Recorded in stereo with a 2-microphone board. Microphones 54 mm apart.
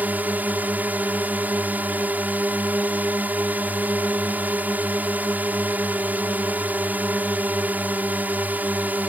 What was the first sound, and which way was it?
A drone, 30° right (ahead or behind).